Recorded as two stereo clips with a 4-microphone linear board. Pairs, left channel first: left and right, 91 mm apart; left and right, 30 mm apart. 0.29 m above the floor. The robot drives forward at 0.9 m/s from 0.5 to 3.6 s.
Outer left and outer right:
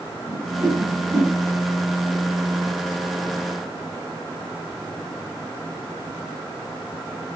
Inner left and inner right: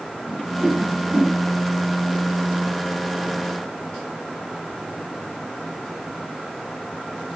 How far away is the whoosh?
About 8 m.